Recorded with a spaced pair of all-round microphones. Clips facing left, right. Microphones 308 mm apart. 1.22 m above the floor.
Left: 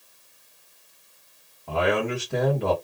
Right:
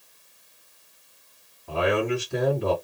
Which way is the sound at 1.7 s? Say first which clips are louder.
Even; 80° left.